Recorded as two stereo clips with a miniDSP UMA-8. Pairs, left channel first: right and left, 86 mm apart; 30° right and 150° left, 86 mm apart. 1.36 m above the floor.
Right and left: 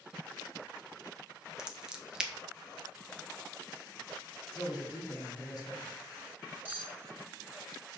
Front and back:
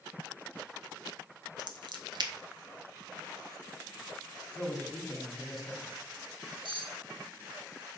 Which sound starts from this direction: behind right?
A man speaking, at 4.5 s.